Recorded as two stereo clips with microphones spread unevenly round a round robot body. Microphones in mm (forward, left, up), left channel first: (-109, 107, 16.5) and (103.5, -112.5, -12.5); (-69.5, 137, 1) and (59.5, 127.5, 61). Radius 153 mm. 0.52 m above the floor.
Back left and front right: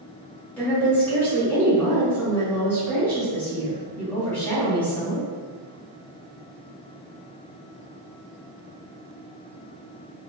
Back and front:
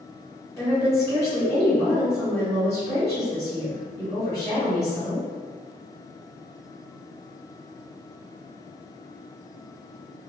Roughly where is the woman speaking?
Behind right.